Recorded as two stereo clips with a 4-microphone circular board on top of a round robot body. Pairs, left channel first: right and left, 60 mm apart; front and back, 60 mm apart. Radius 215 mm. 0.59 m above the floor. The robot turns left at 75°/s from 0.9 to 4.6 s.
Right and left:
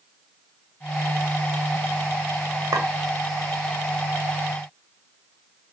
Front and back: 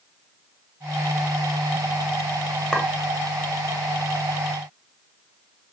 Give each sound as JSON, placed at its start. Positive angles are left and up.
{"t": 2.7, "sound": "a clink", "azimuth_deg": 80, "distance_m": 0.8}